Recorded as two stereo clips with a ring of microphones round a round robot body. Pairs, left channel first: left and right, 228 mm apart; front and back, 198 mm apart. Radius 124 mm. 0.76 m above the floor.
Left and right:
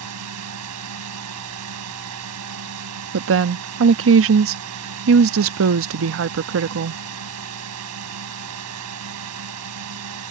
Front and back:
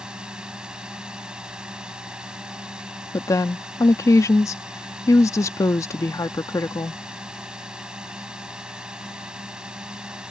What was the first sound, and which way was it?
A drone, 95° right.